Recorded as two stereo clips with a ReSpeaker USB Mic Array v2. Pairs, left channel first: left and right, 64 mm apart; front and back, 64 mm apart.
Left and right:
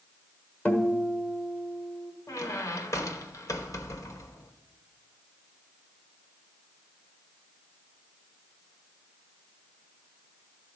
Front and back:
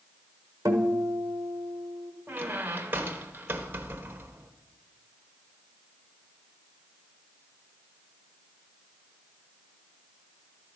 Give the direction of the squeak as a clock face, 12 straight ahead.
8 o'clock.